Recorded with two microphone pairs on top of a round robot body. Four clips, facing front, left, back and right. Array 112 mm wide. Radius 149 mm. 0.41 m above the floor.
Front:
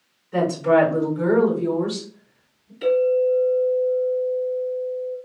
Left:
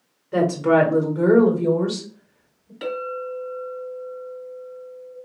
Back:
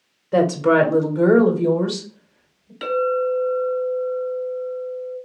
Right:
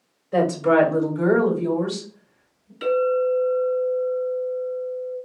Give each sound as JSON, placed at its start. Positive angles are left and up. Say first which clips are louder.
{"t": 0.3, "sound": "a woman speaking", "louder": "even, back 2 dB", "azimuth_deg": -175, "distance_m": 1.7}
{"t": 2.8, "sound": "a clink", "louder": "right 9 dB, front 2 dB", "azimuth_deg": 145, "distance_m": 2.5}